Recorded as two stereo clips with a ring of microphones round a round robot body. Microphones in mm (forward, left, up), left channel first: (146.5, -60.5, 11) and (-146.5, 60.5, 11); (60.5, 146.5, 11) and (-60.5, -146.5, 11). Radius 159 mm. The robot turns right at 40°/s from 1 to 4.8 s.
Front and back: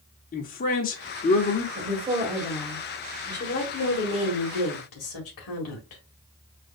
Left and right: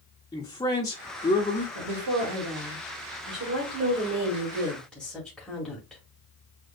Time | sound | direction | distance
0.3 | a man speaking | straight ahead | 0.9 m
1.8 | a woman speaking | 140° right | 2.0 m